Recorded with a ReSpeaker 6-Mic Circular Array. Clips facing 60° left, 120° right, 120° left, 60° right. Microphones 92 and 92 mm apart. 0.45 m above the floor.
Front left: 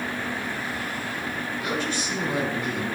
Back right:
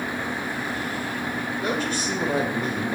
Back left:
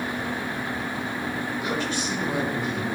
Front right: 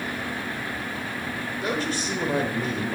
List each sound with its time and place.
1.6 s a man speaking: 95° right, 2 m